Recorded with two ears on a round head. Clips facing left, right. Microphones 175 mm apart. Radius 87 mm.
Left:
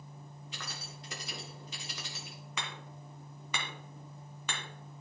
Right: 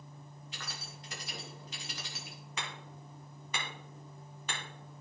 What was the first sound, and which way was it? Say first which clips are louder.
Keys jangling: left 1 dB; 80° left.